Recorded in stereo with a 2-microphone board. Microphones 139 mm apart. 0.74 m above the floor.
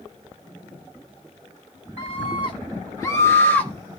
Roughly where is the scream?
Left.